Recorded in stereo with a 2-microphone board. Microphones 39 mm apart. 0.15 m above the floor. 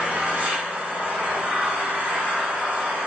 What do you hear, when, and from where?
0.0 s an engine running: 50° right (ahead or behind), 1.4 m